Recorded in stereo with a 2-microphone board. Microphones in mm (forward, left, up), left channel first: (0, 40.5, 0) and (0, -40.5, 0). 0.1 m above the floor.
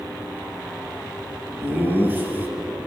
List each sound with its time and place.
1.6 s laughter: 25° right (ahead or behind), 1.3 m